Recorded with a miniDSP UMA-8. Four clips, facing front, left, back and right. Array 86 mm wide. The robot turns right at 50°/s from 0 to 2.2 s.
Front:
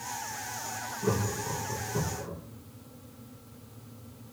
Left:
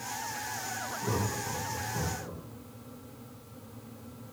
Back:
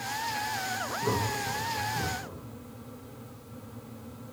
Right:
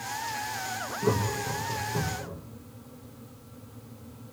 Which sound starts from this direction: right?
Laughter, at 1.0 s.